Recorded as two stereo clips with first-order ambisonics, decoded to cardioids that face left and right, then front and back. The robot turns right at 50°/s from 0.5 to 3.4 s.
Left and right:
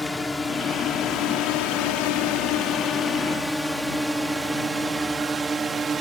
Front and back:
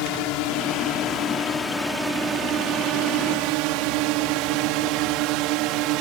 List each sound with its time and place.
0.0 s a drone: 10° left; by 6.0 s 160° right